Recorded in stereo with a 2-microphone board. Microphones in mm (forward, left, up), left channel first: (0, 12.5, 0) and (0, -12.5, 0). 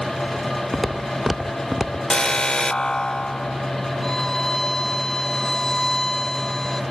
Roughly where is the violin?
Centre.